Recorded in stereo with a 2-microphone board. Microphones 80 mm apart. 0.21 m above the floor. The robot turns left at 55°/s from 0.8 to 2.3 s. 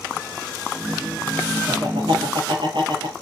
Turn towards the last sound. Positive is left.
turn(degrees=-100)